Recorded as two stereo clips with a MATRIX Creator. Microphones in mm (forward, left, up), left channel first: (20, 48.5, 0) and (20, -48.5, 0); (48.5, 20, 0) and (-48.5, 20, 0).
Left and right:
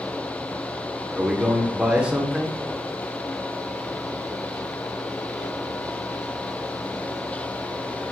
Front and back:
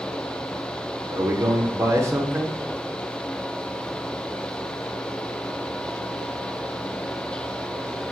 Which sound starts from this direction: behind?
A man speaking, at 1.1 s.